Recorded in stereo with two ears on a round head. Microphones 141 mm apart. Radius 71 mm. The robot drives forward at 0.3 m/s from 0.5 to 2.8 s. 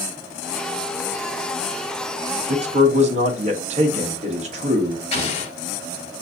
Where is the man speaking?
45° right (ahead or behind), 1.0 m.